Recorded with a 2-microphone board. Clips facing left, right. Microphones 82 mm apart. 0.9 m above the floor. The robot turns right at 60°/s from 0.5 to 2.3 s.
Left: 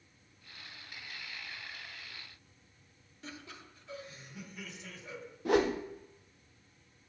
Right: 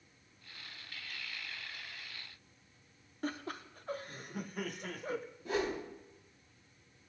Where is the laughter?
45° right (ahead or behind), 0.5 m.